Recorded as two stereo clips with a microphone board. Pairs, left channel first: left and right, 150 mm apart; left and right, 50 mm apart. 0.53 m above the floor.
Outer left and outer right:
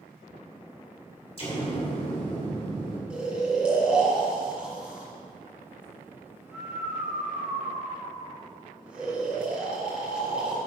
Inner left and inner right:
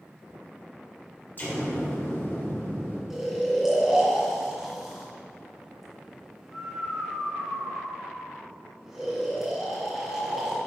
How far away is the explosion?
About 2 m.